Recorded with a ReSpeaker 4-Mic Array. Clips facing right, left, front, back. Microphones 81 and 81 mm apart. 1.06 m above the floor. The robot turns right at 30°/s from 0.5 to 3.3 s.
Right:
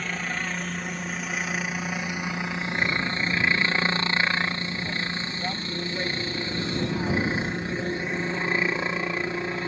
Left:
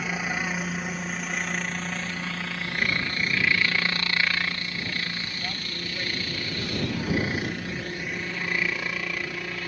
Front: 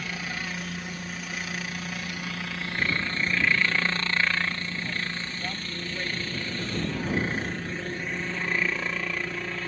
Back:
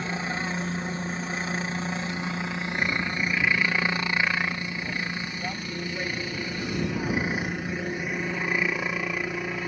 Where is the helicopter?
160° left; by 9.7 s 115° right.